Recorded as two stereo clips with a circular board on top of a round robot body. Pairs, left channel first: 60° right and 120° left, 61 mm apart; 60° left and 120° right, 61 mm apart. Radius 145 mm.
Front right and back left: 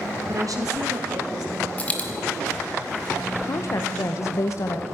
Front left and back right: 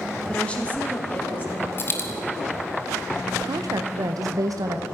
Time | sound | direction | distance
0.3 | a woman speaking | 135° left | 2 m
1.8 | a dropped coin | 5° left | 0.7 m
3.4 | a woman speaking | 100° right | 0.8 m